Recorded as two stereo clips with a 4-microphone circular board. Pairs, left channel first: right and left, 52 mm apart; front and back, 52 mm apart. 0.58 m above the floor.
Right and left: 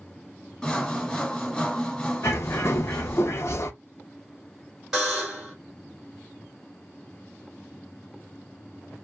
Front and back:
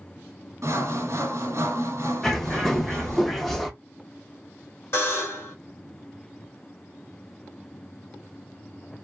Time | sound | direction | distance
0.6 | sawing | 160° right | 1.0 m
2.2 | a bird | 90° right | 0.5 m
4.9 | a buzzer | 10° left | 1.8 m